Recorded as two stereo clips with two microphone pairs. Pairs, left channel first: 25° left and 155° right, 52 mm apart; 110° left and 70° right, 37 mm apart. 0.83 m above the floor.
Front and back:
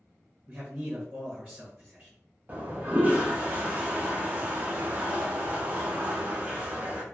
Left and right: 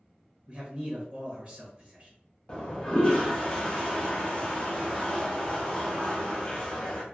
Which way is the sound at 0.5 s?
110° right.